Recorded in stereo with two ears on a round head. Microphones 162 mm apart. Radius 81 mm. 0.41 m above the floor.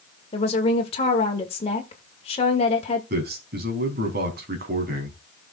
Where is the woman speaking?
35° left (ahead or behind), 1.6 m.